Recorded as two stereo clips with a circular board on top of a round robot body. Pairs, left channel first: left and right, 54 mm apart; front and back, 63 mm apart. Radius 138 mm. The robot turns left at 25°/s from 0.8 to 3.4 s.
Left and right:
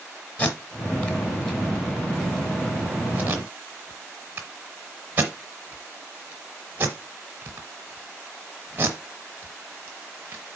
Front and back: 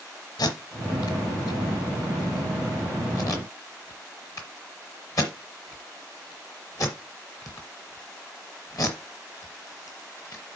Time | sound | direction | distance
0.4 | tape being pulled | 25° left | 0.9 m